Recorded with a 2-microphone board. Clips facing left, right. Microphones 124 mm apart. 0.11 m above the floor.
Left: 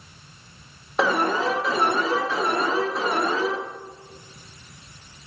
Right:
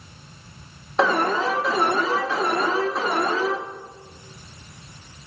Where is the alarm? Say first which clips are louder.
Right 1 dB; 5° left (ahead or behind), 1.4 m.